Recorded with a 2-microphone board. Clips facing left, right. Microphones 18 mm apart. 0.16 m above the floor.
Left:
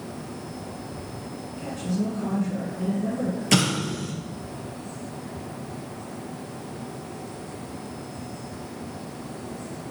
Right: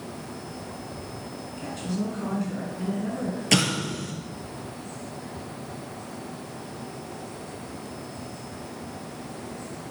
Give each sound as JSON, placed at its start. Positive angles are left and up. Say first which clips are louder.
{"t": 1.6, "sound": "a woman speaking", "louder": "left 2 dB", "side_deg": -35, "distance_m": 1.9}
{"t": 3.5, "sound": "an explosion", "louder": "even", "side_deg": -10, "distance_m": 1.5}